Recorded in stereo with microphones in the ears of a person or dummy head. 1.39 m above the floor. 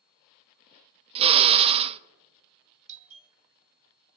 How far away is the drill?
About 0.5 m.